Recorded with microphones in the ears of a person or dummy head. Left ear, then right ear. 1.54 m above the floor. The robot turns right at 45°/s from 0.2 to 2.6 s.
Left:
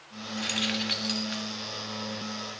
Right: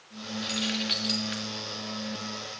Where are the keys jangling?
30° left (ahead or behind), 1.9 m; by 1.4 s 15° right (ahead or behind), 1.9 m.